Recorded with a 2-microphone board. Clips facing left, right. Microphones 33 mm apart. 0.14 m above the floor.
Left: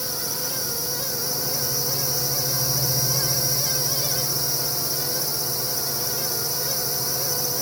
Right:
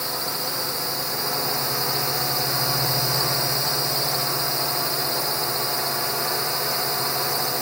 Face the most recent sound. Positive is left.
turn(degrees=-50)  # may be behind; listen again after turning